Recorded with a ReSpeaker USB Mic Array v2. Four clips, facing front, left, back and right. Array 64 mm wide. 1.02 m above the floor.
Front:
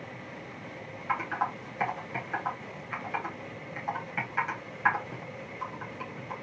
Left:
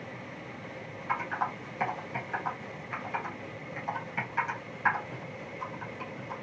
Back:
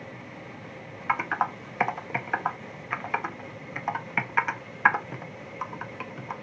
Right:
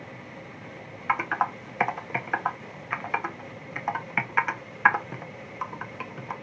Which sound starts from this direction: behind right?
Typing on a keyboard, at 1.1 s.